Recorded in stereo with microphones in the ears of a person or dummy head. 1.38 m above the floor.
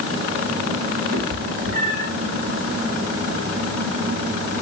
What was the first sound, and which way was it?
A cat meowing, 85° right.